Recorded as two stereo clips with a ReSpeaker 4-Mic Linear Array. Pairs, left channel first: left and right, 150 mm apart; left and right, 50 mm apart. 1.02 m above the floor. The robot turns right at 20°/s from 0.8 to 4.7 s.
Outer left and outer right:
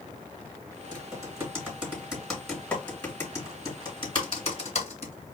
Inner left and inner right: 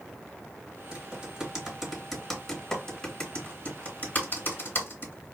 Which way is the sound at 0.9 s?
25° right (ahead or behind).